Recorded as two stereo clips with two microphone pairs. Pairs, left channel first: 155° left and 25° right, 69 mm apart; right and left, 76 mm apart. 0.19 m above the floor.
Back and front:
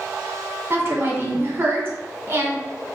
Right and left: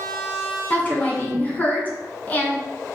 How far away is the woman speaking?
About 1.6 m.